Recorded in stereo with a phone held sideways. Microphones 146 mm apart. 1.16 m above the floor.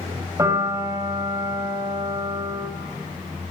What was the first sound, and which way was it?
A piano, 20° right (ahead or behind).